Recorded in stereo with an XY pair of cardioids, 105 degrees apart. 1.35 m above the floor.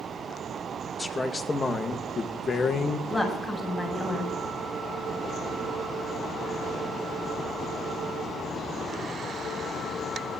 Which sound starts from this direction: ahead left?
A woman speaking, at 3.1 s.